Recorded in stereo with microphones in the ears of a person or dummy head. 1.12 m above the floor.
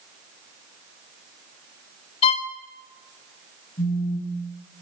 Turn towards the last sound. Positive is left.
turn(degrees=35)  # may be behind; listen again after turning